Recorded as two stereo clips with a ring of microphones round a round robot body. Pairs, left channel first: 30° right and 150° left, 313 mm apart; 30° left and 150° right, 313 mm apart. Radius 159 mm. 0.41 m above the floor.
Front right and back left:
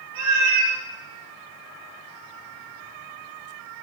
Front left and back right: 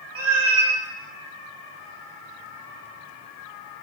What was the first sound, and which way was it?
A cat meowing, 170° left.